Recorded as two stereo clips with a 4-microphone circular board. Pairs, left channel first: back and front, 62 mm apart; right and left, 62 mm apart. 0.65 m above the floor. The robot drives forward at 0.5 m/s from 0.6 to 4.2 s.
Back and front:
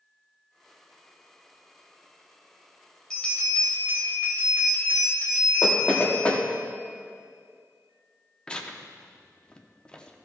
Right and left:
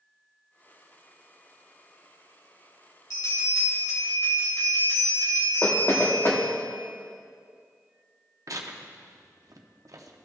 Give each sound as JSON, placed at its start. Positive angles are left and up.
{"t": 3.1, "sound": "a bell", "azimuth_deg": -100, "distance_m": 2.0}
{"t": 5.6, "sound": "knocking", "azimuth_deg": -115, "distance_m": 1.1}
{"t": 8.5, "sound": "tearing paper", "azimuth_deg": 105, "distance_m": 0.6}